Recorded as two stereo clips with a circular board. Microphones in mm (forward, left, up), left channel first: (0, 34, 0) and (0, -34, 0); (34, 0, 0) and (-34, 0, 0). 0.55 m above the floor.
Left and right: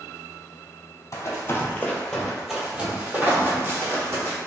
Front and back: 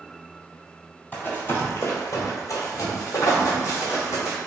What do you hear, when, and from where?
1.1 s running footsteps: 60° left, 0.9 m; by 4.4 s 45° right, 1.6 m